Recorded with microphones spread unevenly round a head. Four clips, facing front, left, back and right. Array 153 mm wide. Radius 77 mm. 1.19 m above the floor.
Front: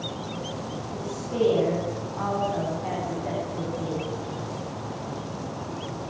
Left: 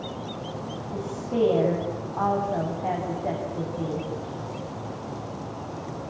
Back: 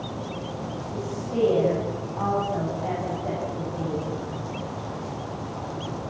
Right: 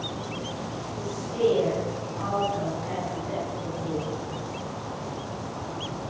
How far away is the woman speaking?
About 10 m.